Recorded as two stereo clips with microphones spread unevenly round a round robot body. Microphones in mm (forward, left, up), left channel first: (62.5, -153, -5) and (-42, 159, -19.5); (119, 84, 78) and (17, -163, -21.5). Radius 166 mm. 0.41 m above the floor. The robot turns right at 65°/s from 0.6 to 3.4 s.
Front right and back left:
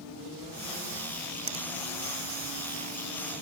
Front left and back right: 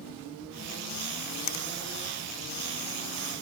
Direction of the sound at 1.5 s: 40° left.